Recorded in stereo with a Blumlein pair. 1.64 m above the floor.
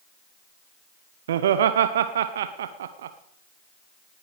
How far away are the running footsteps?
I don't hear running footsteps.